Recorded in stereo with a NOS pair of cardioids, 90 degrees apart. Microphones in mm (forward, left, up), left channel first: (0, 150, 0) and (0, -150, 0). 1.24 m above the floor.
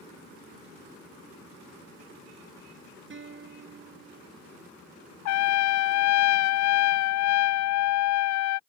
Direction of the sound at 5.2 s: 70° left.